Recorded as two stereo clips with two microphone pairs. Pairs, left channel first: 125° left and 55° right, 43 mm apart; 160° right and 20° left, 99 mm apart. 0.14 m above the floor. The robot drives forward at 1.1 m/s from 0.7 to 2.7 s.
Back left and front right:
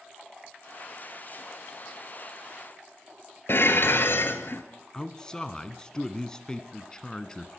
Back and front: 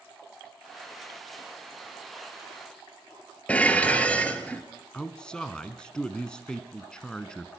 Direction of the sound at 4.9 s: 130° left.